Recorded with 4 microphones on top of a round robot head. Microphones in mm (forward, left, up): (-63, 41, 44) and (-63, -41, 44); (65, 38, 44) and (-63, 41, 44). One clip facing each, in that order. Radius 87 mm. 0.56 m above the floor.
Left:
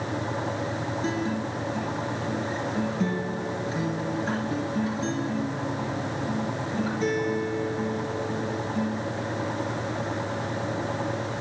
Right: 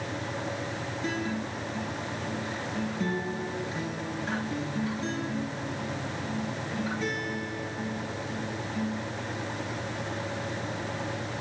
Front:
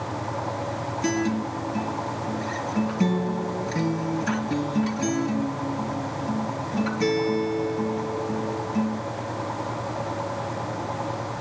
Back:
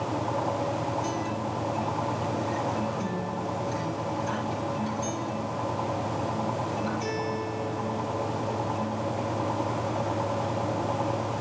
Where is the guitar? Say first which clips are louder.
Left 2 dB, front 5 dB; 20° left, 3 m.